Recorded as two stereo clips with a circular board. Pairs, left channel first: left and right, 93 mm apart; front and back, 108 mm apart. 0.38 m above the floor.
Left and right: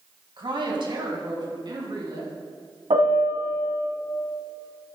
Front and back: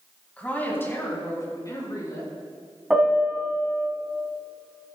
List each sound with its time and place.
0.4 s a woman speaking: 75° right, 3 m; by 2.3 s 50° right, 5 m
2.9 s a piano: 95° right, 1.8 m